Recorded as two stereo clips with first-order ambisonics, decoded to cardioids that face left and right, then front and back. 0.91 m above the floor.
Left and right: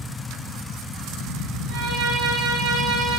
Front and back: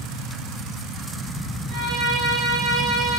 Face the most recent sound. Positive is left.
turn(degrees=-135)